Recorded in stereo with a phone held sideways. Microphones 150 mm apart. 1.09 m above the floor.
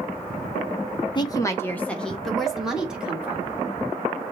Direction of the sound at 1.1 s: 30° left (ahead or behind).